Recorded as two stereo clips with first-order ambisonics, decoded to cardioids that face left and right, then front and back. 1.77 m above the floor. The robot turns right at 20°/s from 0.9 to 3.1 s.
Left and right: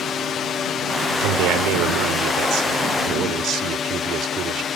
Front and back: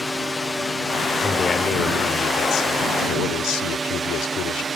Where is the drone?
75° left; by 4.8 s 115° left.